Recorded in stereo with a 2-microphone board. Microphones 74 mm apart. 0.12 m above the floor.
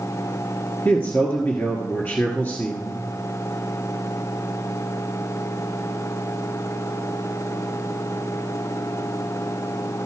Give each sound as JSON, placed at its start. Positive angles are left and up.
{"t": 0.8, "sound": "a man speaking", "side_deg": 30, "distance_m": 1.7}